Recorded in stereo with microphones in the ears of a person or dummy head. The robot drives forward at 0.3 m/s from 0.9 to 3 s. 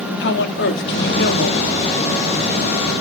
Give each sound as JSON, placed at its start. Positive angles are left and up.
{"t": 0.2, "sound": "a woman speaking", "side_deg": 60, "distance_m": 1.9}